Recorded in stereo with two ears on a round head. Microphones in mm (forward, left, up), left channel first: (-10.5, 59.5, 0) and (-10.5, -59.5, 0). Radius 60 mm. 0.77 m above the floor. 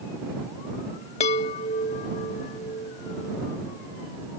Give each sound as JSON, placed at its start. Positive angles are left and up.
{"t": 1.2, "sound": "a chime", "side_deg": 50}